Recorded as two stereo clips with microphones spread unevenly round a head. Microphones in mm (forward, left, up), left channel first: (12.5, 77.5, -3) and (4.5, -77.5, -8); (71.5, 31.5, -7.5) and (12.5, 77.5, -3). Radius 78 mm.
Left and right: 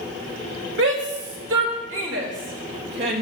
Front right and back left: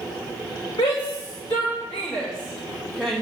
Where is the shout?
80° right, 2 m; by 3.2 s 125° right, 2 m.